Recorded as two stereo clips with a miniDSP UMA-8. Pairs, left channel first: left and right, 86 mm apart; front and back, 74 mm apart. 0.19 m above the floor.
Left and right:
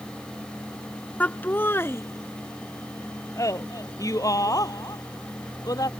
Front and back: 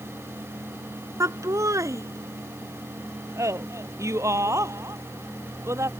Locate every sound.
1.2 s laughter: 155° left; by 5.9 s 135° left